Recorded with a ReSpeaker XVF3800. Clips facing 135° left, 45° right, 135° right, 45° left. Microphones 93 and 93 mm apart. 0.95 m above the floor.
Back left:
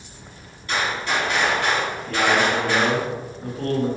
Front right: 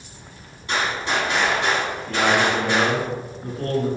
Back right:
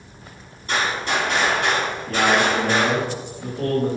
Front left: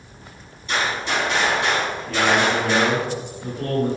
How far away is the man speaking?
About 1.3 m.